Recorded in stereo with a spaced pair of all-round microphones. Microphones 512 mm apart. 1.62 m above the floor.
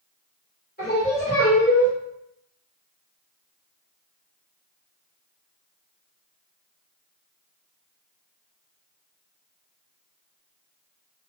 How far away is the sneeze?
No sneeze in this recording.